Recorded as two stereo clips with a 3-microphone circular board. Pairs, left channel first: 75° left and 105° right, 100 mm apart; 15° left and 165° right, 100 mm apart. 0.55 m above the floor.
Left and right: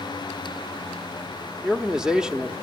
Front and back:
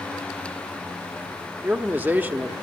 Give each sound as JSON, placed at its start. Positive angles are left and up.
{"t": 1.6, "sound": "a man speaking", "azimuth_deg": -175, "distance_m": 0.9}